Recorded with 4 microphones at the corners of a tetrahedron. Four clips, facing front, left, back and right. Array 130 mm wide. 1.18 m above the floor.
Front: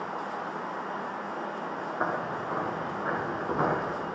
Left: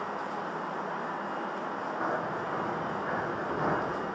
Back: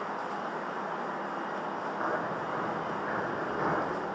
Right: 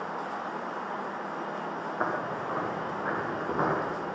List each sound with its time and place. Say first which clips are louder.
2.0 s footsteps: right 2 dB, front 2 dB; 55° right, 6 m; by 3.8 s 50° right, 5.5 m